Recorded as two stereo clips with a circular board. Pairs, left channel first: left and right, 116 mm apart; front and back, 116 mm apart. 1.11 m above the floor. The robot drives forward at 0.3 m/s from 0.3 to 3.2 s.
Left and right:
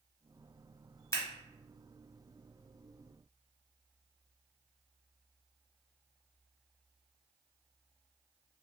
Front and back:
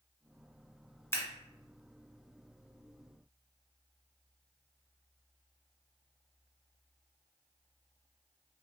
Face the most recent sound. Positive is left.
turn(degrees=120)